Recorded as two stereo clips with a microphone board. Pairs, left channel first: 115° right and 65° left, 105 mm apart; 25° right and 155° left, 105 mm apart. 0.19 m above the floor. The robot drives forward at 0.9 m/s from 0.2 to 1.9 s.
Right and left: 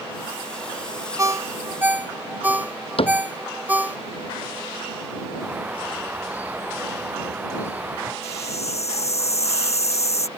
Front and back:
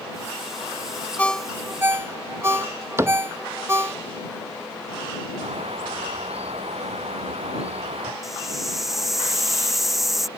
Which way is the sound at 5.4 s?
140° left.